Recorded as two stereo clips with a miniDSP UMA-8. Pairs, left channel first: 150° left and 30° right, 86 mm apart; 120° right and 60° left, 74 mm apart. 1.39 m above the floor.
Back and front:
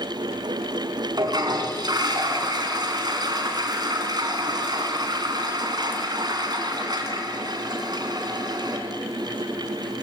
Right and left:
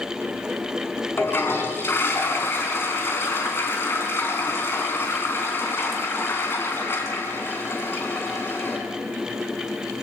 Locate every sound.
1.2 s a toilet flushing: 65° right, 4 m